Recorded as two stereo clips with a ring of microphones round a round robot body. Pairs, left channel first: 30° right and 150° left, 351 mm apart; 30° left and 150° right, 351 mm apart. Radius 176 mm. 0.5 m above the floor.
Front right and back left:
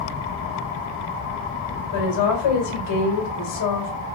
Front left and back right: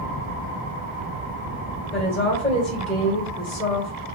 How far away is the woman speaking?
About 2 m.